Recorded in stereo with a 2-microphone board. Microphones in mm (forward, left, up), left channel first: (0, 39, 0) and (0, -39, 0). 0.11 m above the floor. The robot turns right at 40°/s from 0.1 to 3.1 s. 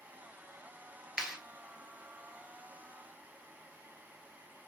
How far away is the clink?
No clink in this recording.